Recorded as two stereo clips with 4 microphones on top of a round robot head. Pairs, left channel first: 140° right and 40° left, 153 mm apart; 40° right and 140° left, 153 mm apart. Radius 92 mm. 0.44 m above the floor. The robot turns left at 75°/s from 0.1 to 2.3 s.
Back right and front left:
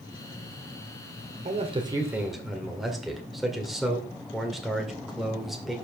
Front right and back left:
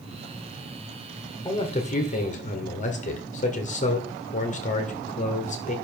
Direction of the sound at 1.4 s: 15° left.